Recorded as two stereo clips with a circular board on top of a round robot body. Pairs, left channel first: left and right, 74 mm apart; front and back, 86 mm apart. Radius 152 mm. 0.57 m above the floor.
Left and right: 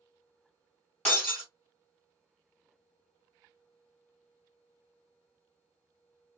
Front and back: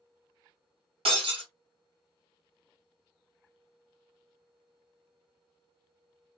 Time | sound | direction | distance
1.1 | breaking glass | 170° left | 1.4 m